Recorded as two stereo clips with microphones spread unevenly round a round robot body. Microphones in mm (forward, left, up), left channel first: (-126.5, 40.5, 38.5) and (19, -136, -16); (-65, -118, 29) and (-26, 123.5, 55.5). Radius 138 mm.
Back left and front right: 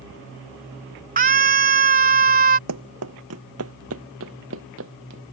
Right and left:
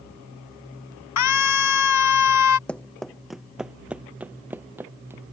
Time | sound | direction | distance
1.2 | a scream | 100° right | ?
2.7 | running footsteps | 10° right | ?